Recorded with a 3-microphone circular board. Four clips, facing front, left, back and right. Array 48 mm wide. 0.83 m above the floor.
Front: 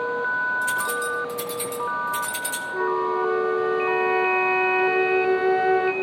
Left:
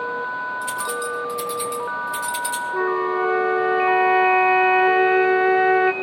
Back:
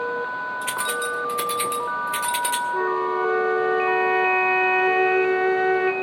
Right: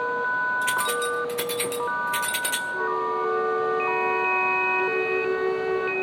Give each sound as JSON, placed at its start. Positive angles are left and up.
{"t": 0.6, "sound": "keys jangling", "azimuth_deg": -130, "distance_m": 2.0}
{"t": 2.7, "sound": "a flute", "azimuth_deg": 105, "distance_m": 1.1}